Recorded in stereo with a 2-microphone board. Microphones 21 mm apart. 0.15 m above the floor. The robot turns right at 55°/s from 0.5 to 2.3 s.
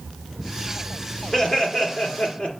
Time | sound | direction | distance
1.3 | laughter | 40° left | 2 m